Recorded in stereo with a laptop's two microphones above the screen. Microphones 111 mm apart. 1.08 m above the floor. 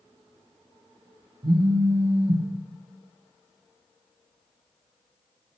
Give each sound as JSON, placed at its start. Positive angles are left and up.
{"t": 1.4, "sound": "a phone buzzing", "side_deg": -45, "distance_m": 0.5}